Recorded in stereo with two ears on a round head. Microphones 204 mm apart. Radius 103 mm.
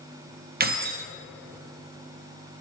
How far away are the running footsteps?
I don't hear running footsteps.